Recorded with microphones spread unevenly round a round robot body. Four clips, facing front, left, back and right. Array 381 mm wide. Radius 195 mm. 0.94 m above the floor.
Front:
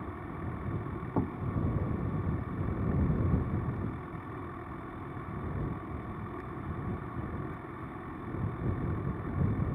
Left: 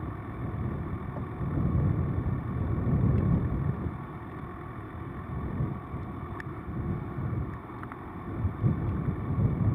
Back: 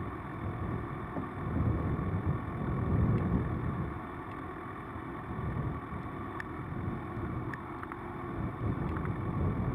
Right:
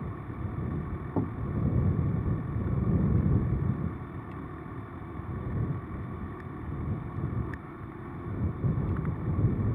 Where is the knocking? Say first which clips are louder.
Right 7 dB, front 8 dB; 65° right.